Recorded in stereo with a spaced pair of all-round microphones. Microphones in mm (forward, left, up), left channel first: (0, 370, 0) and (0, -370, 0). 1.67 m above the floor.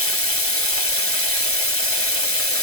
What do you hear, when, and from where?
0.0 s running water: 15° left (ahead or behind), 1.5 m